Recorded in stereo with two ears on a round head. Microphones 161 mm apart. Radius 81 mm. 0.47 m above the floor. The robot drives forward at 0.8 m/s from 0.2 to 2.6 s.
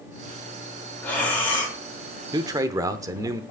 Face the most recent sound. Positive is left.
turn(degrees=-20)  # may be behind; listen again after turning